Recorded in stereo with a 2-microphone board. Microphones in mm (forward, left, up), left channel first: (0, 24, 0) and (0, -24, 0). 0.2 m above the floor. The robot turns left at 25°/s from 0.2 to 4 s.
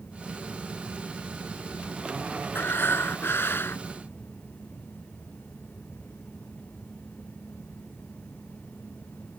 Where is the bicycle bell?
I don't hear a bicycle bell.